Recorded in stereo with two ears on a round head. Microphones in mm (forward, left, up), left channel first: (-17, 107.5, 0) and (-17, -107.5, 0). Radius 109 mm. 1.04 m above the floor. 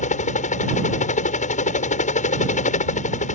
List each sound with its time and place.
0.0 s a helicopter: 30° left (ahead or behind)